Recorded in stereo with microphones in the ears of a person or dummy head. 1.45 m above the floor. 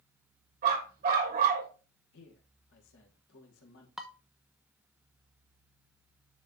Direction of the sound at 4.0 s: Centre (ahead or behind).